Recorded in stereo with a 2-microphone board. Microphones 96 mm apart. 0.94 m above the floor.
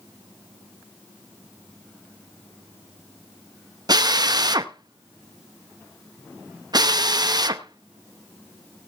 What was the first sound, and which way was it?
A drill, 45° right (ahead or behind).